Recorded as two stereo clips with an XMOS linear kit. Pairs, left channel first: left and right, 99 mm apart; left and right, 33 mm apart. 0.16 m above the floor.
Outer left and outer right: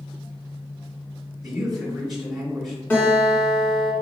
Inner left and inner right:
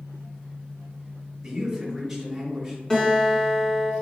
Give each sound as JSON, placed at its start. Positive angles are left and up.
{"t": 1.4, "sound": "a man speaking", "side_deg": 0, "distance_m": 1.8}
{"t": 2.9, "sound": "a guitar", "side_deg": 20, "distance_m": 1.6}